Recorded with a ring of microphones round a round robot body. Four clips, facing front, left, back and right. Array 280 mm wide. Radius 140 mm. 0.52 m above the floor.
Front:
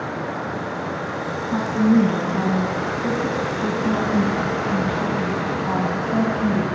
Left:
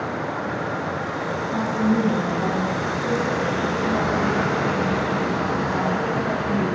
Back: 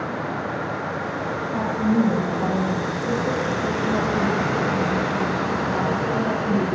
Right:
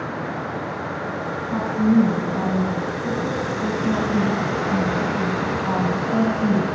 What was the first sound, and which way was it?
A woman speaking, 25° right.